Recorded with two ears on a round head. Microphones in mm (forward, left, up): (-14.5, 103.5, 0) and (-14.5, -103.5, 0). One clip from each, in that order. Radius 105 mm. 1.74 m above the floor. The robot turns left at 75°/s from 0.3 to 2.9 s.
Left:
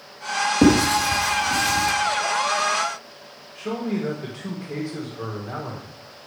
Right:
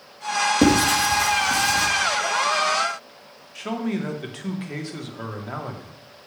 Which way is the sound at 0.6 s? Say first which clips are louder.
Left 2 dB; 25° right (ahead or behind).